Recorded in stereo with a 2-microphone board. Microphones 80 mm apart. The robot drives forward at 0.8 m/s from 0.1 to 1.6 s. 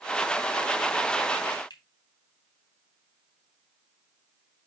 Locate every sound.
1.7 s a finger snap: 65° left (ahead or behind), 2.5 m